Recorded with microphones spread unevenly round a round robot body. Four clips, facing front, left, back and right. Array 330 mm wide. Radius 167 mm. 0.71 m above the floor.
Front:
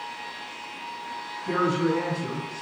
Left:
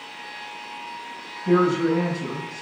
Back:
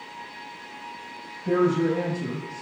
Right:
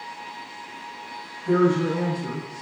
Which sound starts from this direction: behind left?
A woman speaking, at 1.4 s.